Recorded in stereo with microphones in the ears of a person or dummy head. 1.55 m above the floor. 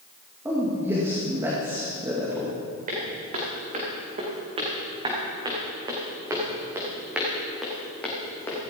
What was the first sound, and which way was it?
A man speaking, 20° right (ahead or behind).